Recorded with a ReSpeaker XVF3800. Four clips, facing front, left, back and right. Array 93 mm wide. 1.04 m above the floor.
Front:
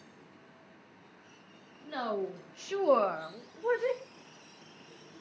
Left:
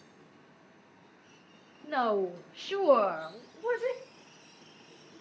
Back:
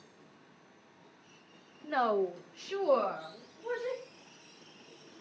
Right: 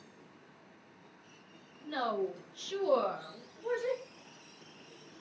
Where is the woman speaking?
135° left, 1.2 m; by 4.0 s 35° left, 1.9 m.